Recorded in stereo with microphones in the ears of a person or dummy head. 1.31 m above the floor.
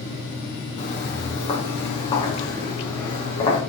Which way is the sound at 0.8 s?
30° left (ahead or behind).